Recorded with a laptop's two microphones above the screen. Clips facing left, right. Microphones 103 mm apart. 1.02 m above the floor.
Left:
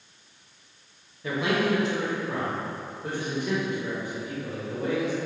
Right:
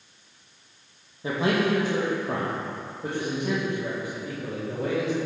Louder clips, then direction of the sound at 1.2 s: Right 1 dB; 25° right (ahead or behind).